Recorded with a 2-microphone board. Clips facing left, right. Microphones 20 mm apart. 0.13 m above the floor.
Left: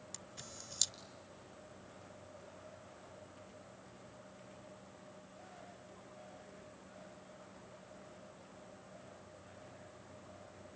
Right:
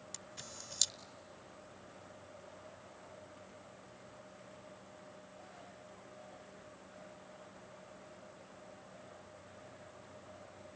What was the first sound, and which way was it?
A camera shutter, 10° right (ahead or behind).